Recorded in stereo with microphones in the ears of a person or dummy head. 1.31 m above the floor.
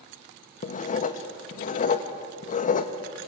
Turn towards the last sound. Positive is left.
turn(degrees=45)  # may be behind; listen again after turning